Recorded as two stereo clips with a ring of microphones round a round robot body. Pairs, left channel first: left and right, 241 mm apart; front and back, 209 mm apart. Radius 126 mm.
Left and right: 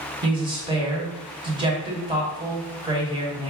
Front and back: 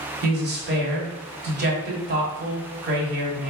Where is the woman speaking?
155° right, 1.2 m.